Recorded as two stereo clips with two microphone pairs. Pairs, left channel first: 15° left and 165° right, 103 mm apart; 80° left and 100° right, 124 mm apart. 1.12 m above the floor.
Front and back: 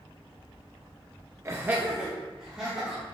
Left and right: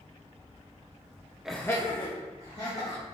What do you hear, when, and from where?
1.4 s laughter: straight behind, 0.7 m; by 3.0 s 105° left, 2.5 m